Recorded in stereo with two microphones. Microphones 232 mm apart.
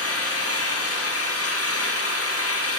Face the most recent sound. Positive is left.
turn(degrees=80)